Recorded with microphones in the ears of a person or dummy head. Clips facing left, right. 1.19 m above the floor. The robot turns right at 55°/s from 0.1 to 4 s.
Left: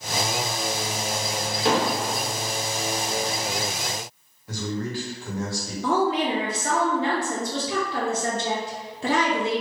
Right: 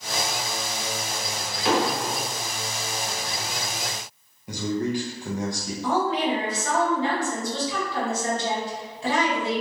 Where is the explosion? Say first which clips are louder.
Even; 30° left, 0.7 m; by 2.2 s 60° left, 0.7 m.